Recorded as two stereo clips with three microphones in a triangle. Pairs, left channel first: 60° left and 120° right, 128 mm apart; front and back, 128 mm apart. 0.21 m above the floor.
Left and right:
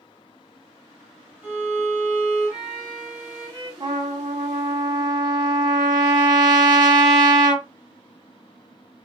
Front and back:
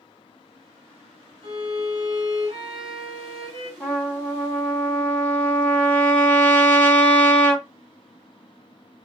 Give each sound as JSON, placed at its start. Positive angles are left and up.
{"t": 1.4, "sound": "a violin", "azimuth_deg": 170, "distance_m": 1.3}
{"t": 3.8, "sound": "a trumpet", "azimuth_deg": -75, "distance_m": 1.2}